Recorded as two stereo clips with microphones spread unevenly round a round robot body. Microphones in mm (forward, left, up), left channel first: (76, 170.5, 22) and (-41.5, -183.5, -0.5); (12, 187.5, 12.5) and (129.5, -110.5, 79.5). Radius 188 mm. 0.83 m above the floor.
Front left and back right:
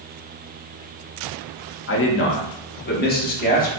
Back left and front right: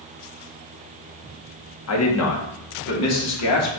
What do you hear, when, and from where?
1.9 s a man speaking: 125° left, 1.6 m; by 3.7 s 140° left, 2.5 m